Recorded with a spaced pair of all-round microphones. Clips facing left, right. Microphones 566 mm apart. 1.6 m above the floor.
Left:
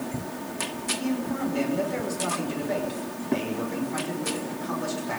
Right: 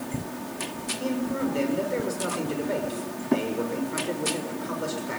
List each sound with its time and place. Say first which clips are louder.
1.0 s a man speaking: right 1 dB; 15° left (ahead or behind), 6.5 m